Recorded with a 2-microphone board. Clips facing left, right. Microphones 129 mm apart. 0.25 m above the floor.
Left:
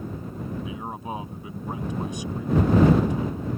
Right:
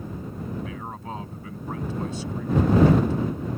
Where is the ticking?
I don't hear ticking.